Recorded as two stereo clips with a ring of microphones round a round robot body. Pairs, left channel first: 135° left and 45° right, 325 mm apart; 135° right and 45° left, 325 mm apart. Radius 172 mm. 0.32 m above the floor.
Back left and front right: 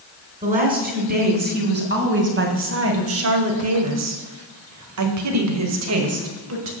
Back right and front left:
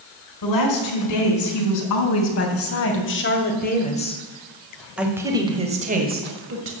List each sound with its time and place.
0.4 s a woman speaking: 110° right, 3.5 m; by 6.7 s straight ahead, 2 m